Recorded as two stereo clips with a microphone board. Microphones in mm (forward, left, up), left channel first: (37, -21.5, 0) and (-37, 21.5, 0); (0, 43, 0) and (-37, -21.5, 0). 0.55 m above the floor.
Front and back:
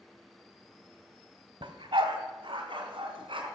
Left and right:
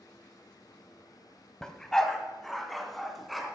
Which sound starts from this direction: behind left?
A dog barking, at 1.6 s.